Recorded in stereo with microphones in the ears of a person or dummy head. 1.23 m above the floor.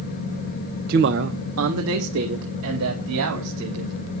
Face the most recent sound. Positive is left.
turn(degrees=-80)